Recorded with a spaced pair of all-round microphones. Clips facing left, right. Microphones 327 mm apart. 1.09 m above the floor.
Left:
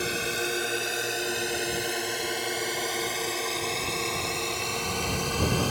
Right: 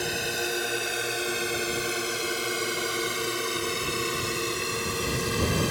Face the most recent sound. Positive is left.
turn(degrees=-25)  # may be behind; listen again after turning